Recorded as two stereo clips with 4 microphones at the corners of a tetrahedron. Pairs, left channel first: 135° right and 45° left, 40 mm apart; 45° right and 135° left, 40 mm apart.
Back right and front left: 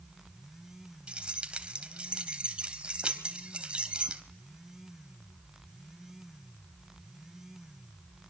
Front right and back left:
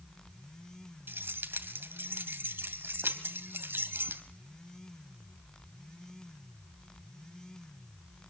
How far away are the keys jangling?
About 2.5 m.